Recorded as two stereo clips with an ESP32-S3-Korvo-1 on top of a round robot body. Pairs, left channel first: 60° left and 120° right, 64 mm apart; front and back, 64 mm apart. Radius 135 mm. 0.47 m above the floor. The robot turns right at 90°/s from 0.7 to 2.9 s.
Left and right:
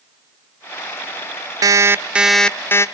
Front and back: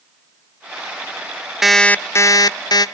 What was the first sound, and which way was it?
An alarm clock, 95° right.